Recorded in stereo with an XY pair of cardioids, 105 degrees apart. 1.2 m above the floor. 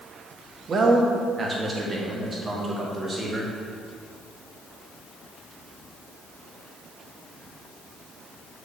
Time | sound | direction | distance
0.7 | a man speaking | 45° right | 1.5 m